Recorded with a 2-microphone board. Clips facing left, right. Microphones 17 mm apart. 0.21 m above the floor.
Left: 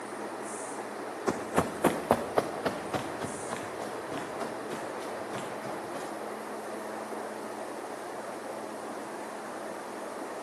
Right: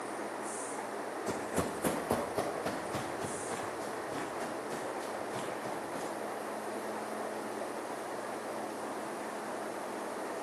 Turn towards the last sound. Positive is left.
turn(degrees=40)  # may be behind; listen again after turning